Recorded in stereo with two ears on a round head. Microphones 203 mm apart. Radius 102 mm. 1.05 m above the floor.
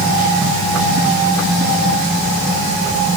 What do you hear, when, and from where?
Only background noise.